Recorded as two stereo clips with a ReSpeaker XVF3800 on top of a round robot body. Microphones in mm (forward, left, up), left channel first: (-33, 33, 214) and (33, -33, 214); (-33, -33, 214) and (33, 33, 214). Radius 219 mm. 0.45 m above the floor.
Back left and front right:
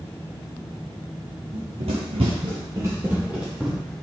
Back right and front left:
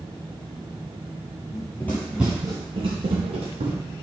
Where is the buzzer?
I don't hear a buzzer.